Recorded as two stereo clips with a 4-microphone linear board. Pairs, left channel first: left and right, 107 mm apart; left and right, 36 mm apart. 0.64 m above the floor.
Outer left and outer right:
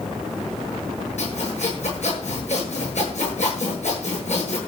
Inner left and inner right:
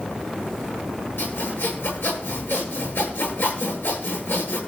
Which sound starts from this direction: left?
Sawing, at 1.2 s.